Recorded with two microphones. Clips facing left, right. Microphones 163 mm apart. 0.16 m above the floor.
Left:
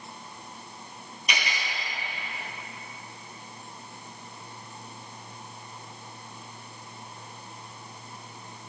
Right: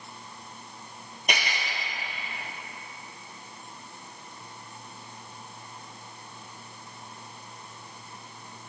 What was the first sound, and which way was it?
Cutlery clinking, 50° right (ahead or behind).